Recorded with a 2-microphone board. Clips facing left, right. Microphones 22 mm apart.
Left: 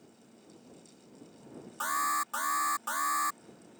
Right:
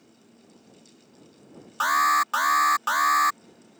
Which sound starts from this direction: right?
An alarm, at 1.8 s.